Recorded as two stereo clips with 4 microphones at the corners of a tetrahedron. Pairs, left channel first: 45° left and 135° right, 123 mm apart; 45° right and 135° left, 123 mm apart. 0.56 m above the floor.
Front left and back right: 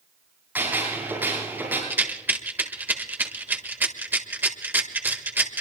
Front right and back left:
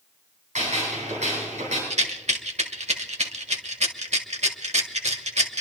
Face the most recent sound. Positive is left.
turn(degrees=150)